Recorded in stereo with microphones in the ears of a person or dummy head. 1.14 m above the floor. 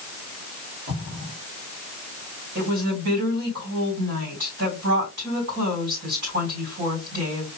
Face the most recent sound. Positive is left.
turn(degrees=-60)  # may be behind; listen again after turning